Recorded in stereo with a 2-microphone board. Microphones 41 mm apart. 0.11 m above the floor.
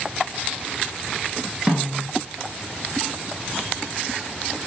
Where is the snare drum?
15° right (ahead or behind), 2 m.